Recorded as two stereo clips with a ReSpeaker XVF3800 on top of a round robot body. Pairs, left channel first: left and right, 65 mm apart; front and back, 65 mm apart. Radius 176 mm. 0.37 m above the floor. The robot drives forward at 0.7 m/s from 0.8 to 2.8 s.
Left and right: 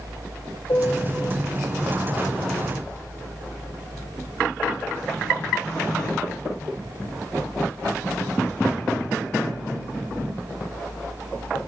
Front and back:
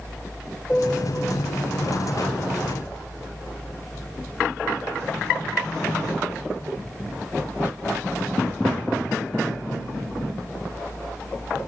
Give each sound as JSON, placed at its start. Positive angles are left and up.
{"t": 0.7, "sound": "a piano", "azimuth_deg": 70, "distance_m": 1.6}